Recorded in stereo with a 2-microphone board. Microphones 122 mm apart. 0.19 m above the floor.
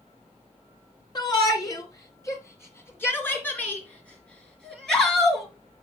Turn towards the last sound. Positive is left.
turn(degrees=0)  # may be behind; listen again after turning